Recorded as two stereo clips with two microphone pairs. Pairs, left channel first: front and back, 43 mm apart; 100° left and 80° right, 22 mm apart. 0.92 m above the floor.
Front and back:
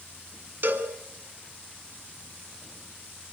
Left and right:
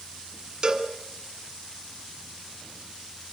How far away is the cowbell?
About 2.5 m.